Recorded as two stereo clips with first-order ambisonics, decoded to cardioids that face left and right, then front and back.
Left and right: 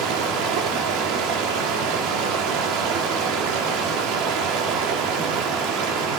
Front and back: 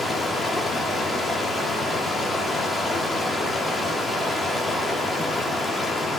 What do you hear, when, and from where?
0.0 s running water: 80° right, 1.9 m